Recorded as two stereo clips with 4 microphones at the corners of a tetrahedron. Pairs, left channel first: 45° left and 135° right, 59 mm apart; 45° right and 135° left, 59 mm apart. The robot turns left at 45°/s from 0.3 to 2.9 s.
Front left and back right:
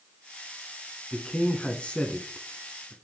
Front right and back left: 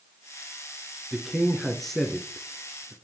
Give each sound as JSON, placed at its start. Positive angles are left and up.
{"t": 1.1, "sound": "a man speaking", "azimuth_deg": 65, "distance_m": 1.1}